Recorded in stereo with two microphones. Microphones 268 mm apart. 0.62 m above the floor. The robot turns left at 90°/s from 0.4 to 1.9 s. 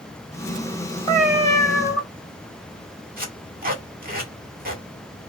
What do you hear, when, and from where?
1.1 s a cat meowing: 20° left, 1.7 m; by 2.0 s 55° right, 1.7 m
3.2 s tape being pulled: 35° right (ahead or behind), 2.0 m